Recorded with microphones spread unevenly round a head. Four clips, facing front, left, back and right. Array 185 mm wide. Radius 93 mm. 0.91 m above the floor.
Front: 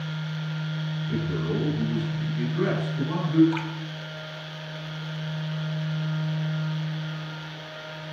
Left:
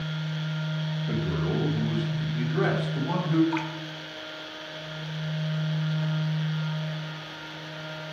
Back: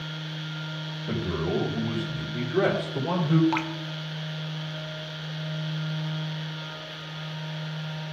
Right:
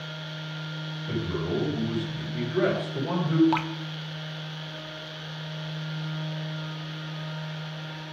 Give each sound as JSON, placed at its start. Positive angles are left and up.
{"t": 1.1, "sound": "a man speaking", "azimuth_deg": 170, "distance_m": 4.5}
{"t": 3.5, "sound": "dripping", "azimuth_deg": -110, "distance_m": 0.6}